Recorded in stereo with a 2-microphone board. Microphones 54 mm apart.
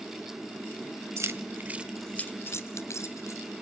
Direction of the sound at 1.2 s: 60° right (ahead or behind).